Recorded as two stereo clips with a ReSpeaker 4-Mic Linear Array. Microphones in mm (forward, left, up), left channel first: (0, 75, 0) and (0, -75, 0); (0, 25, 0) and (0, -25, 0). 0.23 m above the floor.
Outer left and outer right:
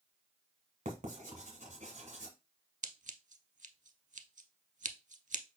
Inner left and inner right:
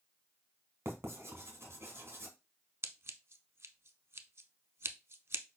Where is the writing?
55° right (ahead or behind), 1.3 m.